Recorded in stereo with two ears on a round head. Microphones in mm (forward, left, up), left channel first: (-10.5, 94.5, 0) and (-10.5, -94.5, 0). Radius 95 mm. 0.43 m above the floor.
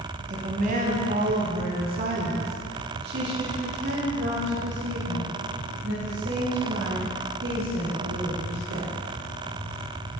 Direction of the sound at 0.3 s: 40° right (ahead or behind).